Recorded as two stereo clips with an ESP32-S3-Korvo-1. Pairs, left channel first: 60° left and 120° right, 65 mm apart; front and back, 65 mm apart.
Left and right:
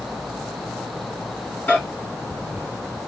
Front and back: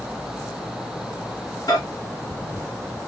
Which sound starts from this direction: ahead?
A microwave, at 1.7 s.